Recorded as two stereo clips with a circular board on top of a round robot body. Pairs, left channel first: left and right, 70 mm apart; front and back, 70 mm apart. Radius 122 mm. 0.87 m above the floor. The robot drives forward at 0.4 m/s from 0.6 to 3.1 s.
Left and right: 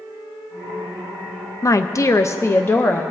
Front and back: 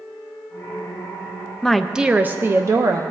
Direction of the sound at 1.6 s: 80° left.